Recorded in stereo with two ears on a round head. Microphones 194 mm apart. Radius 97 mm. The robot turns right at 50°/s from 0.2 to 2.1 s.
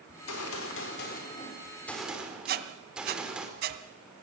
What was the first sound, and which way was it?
A gunshot, 90° left.